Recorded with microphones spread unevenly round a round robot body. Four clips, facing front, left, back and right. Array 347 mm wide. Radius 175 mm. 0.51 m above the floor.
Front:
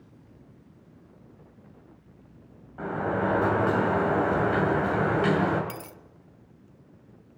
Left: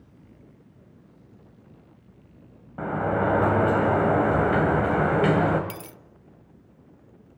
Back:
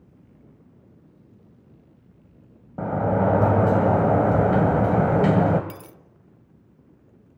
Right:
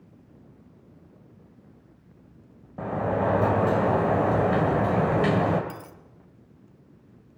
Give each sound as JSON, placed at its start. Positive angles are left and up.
{"t": 2.8, "sound": "a sliding door", "azimuth_deg": -175, "distance_m": 2.5}
{"t": 5.7, "sound": "a dropped coin", "azimuth_deg": 70, "distance_m": 0.6}